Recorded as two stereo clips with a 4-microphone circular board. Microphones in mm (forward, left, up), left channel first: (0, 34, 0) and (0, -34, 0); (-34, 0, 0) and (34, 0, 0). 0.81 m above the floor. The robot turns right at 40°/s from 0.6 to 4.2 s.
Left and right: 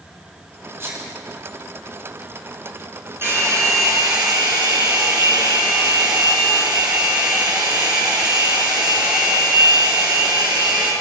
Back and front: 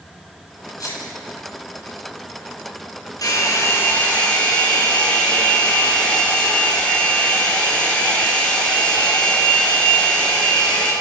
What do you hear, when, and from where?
0.8 s a sneeze: 150° right, 8.5 m; by 1.1 s 135° right, 8.5 m
3.2 s a hair dryer: 145° right, 7.5 m; by 10.9 s 105° right, 7.5 m